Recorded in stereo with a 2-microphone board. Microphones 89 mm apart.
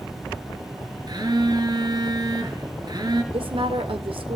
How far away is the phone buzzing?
About 3 m.